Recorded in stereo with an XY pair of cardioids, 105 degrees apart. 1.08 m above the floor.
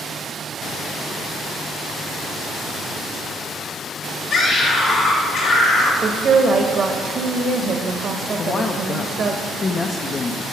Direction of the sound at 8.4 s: 35° left.